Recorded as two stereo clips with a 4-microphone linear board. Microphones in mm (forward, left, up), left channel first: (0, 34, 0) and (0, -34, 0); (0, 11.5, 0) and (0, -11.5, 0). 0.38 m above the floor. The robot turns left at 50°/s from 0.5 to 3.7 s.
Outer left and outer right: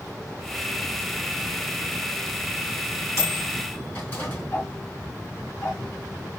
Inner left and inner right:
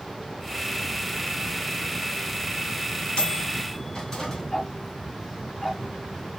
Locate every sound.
3.2 s a microwave: 55° left (ahead or behind), 2 m; by 4.4 s 30° left (ahead or behind), 2 m
4.5 s ticking: 45° left (ahead or behind), 3.5 m